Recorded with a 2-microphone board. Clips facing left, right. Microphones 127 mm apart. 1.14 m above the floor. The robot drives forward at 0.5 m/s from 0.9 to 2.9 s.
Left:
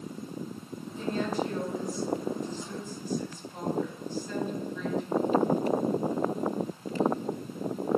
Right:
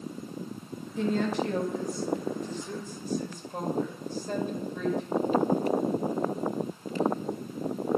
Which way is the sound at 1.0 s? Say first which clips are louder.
Right 3 dB; 80° right.